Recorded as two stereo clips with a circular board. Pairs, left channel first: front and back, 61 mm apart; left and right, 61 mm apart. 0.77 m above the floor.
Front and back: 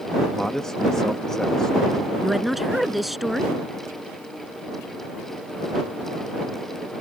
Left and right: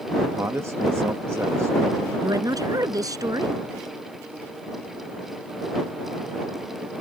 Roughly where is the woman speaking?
Right.